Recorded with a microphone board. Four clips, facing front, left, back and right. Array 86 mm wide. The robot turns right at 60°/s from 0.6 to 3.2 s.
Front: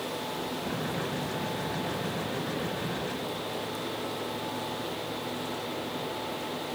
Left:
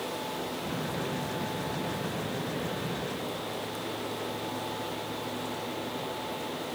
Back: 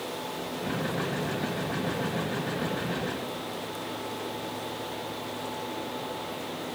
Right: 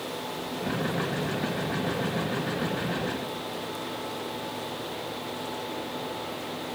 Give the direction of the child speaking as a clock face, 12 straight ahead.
No child speaking in this recording.